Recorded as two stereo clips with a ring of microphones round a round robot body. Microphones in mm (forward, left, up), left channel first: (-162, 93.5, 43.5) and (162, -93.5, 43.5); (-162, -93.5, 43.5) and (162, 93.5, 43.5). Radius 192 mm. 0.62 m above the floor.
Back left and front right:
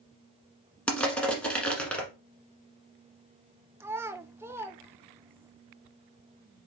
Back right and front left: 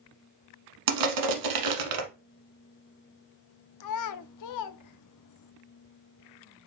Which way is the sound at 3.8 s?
115° right.